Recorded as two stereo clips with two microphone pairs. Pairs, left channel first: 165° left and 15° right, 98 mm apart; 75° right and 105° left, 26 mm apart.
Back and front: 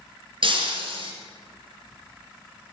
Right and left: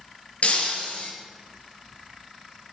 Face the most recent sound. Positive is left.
turn(degrees=-40)